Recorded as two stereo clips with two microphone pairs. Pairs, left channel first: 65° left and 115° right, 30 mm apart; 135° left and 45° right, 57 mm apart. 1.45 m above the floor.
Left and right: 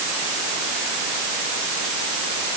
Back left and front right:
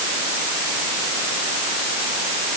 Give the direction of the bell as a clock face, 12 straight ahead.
I don't hear a bell.